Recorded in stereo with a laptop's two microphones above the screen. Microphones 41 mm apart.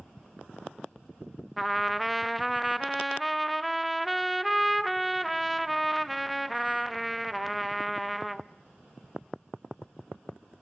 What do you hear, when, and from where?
1.6 s a trumpet: centre (ahead or behind), 0.7 m